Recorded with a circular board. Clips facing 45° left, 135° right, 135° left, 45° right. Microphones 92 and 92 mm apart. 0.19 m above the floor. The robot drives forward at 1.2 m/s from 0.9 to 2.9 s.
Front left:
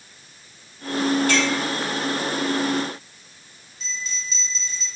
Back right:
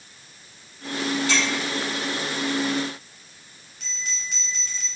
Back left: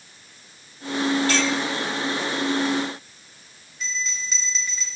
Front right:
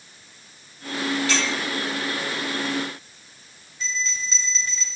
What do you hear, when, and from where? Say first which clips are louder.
1.3 s a clink: front left 4 dB, back left 3 dB; 85° left, 4.5 m
3.8 s a bell: front left 2 dB, front right 1 dB; 145° right, 3 m